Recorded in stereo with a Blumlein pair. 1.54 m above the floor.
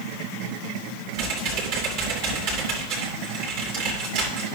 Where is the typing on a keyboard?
45° right, 2.5 m.